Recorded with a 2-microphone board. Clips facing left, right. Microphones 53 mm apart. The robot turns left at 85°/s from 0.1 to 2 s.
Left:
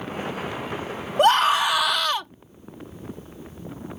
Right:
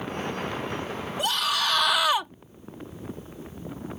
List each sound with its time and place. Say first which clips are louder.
1.2 s a scream: left 10 dB; 60° left; by 2.3 s 10° right